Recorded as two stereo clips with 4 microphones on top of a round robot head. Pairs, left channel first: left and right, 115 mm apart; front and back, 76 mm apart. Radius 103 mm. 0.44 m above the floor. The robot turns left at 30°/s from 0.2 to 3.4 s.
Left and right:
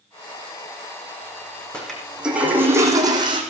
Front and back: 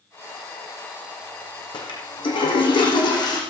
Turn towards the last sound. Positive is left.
turn(degrees=-40)